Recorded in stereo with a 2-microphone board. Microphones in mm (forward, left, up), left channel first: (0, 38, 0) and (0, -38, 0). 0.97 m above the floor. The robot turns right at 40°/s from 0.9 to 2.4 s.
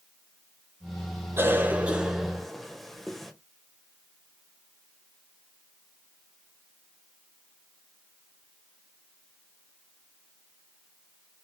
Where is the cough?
30° right (ahead or behind), 1.2 m; by 3.3 s centre (ahead or behind), 1.2 m.